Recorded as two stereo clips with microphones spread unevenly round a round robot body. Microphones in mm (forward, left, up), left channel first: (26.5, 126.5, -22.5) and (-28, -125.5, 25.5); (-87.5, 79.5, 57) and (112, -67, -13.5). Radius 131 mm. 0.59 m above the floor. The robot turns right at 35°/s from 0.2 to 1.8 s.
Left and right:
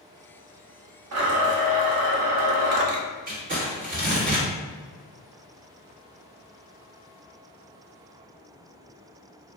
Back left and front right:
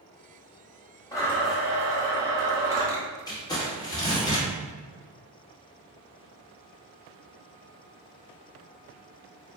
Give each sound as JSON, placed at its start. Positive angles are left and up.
{"t": 1.1, "sound": "a blender", "azimuth_deg": -140, "distance_m": 0.6}
{"t": 3.3, "sound": "crumpling", "azimuth_deg": -125, "distance_m": 1.1}